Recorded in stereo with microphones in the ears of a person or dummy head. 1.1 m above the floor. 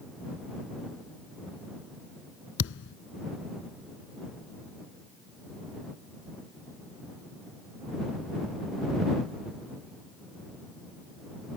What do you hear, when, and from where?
2.6 s a thud: 70° left (ahead or behind)